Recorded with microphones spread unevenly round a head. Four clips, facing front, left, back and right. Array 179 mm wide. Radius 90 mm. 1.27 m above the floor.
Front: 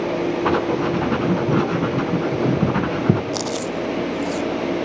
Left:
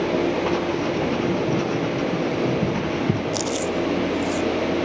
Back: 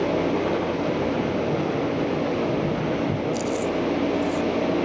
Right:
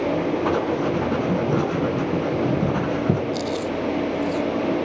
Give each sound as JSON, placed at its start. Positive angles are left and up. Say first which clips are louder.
{"t": 0.5, "sound": "writing", "louder": "right 1 dB, front 4 dB", "azimuth_deg": -5, "distance_m": 3.0}
{"t": 3.3, "sound": "chewing", "louder": "left 1 dB, even", "azimuth_deg": 25, "distance_m": 0.5}